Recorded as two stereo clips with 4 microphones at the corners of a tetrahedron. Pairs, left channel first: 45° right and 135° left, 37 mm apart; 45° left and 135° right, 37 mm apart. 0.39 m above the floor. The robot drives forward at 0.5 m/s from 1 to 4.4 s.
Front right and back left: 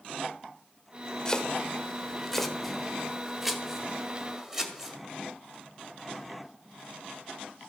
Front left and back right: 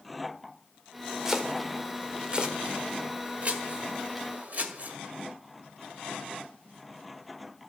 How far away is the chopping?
About 1.4 m.